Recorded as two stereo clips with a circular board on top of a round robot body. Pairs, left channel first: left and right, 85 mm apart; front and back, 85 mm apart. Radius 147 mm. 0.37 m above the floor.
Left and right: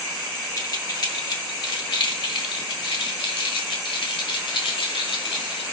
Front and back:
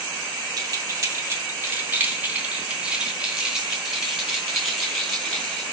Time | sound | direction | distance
0.6 | keys jangling | 135° left | 2.5 m